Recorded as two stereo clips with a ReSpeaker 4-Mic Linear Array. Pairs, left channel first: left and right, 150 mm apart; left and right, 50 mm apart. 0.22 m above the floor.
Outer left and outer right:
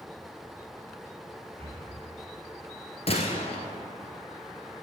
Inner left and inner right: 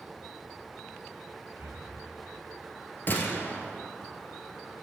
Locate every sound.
1.6 s breathing: 40° right (ahead or behind), 1.5 m
3.1 s a gunshot: 45° left (ahead or behind), 1.2 m